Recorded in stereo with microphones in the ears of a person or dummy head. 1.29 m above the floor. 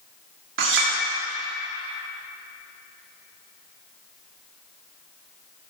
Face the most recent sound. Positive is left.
turn(degrees=-65)  # may be behind; listen again after turning